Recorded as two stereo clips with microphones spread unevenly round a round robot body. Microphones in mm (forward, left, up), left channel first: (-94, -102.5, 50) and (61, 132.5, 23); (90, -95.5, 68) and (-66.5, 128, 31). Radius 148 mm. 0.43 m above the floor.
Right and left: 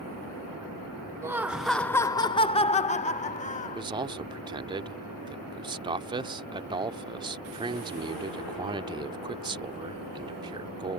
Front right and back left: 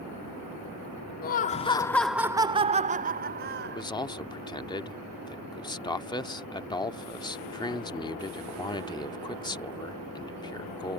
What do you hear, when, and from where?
1.2 s laughter: 10° right; by 3.8 s 170° left
3.6 s a man speaking: 20° left